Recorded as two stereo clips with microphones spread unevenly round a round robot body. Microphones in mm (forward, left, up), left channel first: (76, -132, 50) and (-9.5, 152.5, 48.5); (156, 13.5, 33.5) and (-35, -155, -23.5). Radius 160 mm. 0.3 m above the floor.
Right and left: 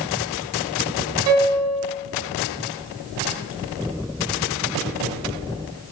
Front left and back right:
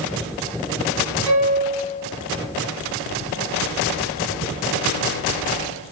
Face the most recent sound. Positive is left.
turn(degrees=145)